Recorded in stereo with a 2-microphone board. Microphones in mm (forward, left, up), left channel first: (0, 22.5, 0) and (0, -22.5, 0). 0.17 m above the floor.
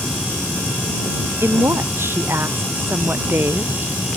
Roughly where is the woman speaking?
Right.